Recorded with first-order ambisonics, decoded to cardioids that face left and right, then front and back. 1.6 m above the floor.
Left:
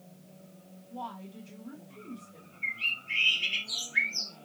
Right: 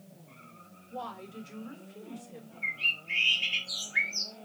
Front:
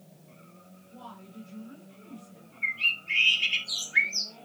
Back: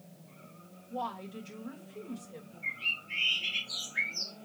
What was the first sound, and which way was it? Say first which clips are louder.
A woman speaking: right 1 dB, back 10 dB; 145° right.